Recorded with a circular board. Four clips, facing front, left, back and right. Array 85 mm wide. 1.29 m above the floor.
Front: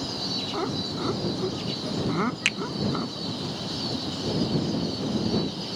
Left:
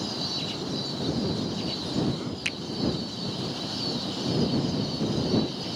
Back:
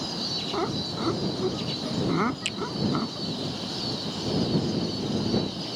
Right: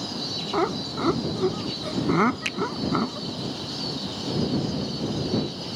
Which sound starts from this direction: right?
Laughter, at 0.5 s.